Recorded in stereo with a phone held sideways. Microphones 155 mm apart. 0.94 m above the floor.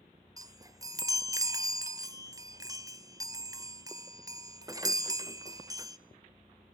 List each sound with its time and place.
0.4 s a chime: 25° right (ahead or behind), 0.6 m